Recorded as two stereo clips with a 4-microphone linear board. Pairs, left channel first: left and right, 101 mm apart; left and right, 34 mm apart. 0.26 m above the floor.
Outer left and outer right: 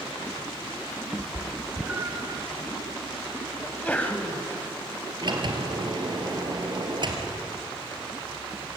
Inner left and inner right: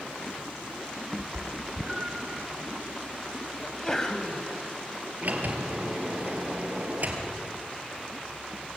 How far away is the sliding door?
About 2.5 m.